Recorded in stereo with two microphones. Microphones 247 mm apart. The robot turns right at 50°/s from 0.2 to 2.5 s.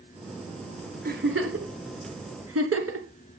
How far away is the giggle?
About 1.6 m.